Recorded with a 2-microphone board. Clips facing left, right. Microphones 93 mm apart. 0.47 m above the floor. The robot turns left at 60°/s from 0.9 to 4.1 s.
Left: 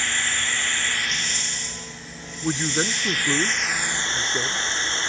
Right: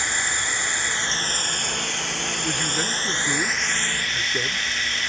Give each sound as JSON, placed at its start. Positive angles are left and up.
{"t": 0.0, "sound": "running water", "azimuth_deg": -15}
{"t": 2.4, "sound": "a man speaking", "side_deg": 25}